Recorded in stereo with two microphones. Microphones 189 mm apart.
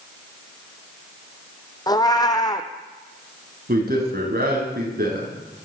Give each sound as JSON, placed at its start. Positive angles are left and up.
{"t": 1.9, "sound": "a cat meowing", "side_deg": 20, "distance_m": 0.6}
{"t": 3.7, "sound": "a man speaking", "side_deg": -55, "distance_m": 1.9}